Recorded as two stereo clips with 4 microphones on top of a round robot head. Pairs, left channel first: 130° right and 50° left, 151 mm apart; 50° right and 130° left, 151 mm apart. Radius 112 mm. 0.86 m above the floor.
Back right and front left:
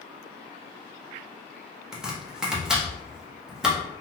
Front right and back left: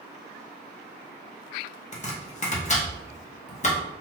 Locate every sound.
1.9 s chopping: 35° right, 0.9 m